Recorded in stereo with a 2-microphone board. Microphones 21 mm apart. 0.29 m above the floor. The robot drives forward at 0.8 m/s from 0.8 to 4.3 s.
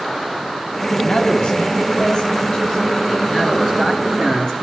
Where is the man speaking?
45° left (ahead or behind), 3 m; by 4.5 s 25° left (ahead or behind), 5 m.